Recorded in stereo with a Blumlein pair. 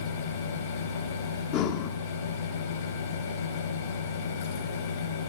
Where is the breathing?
40° left, 1.1 m.